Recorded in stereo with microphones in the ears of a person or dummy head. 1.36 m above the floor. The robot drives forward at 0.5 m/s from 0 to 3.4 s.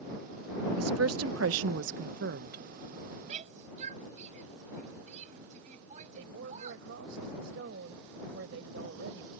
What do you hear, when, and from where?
0.8 s a woman speaking: 85° right; by 2.6 s 50° right (ahead or behind)
3.3 s a shout: 40° right (ahead or behind); by 6.9 s 45° right (ahead or behind)
6.2 s a woman speaking: 75° right (ahead or behind)